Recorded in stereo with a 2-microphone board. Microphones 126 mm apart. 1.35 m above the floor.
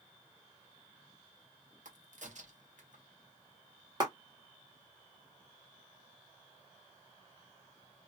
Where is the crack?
65° right (ahead or behind), 0.9 m.